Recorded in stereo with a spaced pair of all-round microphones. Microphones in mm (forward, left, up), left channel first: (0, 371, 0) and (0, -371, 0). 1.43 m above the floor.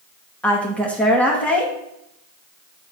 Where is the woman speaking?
Centre (ahead or behind), 2.5 m.